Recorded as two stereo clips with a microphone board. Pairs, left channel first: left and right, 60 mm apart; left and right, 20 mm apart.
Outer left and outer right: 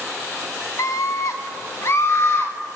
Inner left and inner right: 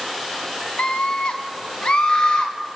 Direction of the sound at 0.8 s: 60° left (ahead or behind).